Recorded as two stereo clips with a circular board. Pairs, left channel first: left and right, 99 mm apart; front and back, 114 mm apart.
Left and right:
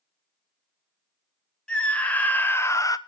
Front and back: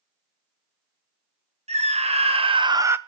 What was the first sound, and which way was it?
A scream, 170° left.